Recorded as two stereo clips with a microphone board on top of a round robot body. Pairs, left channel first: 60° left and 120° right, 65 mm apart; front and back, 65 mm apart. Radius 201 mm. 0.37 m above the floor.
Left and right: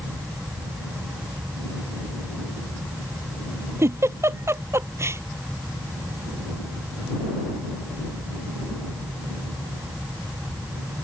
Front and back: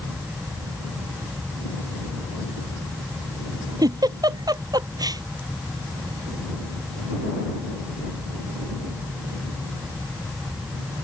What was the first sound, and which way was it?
A giggle, 165° right.